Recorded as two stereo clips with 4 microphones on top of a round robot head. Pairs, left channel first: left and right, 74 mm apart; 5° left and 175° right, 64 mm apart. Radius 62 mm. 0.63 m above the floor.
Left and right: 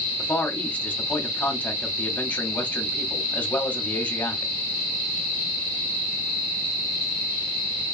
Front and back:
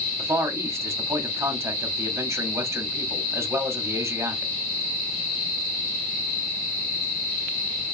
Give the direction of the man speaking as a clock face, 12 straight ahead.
7 o'clock.